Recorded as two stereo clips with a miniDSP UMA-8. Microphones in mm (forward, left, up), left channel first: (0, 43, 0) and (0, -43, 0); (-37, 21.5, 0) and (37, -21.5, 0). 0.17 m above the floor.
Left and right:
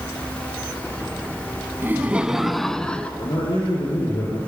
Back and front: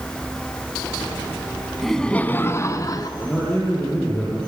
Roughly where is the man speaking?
Left.